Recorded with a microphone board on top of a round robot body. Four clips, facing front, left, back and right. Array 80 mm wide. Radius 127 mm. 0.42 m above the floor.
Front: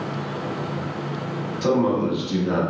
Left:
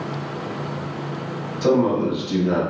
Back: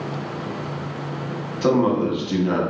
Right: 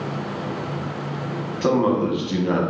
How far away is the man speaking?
About 1.0 m.